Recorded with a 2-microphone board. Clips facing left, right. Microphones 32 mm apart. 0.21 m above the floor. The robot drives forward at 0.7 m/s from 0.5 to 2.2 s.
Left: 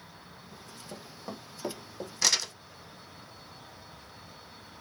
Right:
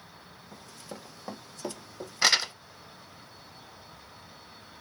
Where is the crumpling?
35° right (ahead or behind), 0.6 m.